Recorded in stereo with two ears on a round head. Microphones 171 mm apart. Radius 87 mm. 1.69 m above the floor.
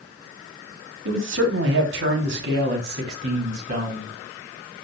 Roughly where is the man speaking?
Right.